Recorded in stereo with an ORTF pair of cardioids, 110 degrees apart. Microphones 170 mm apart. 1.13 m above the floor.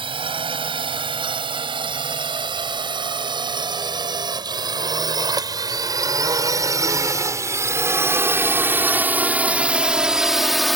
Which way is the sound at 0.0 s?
30° right.